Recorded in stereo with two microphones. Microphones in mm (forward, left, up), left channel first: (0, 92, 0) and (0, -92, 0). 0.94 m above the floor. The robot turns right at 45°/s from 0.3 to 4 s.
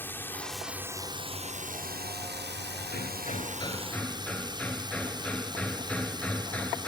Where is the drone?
170° left; by 6.9 s 25° right.